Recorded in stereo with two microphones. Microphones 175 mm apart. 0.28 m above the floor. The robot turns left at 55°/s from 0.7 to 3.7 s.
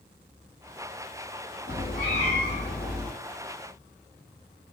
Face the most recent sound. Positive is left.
turn(degrees=-70)